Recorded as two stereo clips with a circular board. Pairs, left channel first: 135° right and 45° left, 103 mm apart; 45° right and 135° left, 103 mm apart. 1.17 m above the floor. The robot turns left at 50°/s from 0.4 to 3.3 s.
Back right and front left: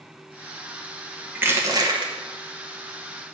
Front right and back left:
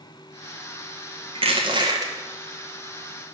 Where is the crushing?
115° left, 0.9 m; by 2.1 s 80° left, 0.9 m.